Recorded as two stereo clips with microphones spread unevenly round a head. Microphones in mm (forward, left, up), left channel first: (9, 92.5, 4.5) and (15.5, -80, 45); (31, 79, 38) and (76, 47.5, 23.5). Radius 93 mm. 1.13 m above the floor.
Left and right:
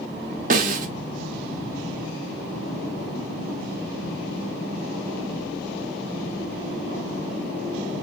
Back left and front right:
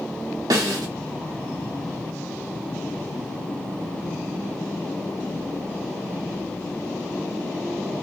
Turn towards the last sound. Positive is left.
turn(degrees=-70)